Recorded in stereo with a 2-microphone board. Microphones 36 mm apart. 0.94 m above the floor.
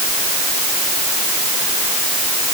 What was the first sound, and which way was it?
Only background noise.